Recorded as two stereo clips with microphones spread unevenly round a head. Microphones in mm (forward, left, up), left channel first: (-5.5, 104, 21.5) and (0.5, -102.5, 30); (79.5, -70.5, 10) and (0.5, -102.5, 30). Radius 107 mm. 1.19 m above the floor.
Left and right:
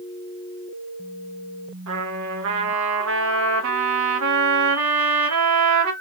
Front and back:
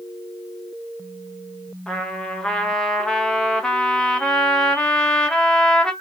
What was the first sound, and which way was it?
A trumpet, 65° right.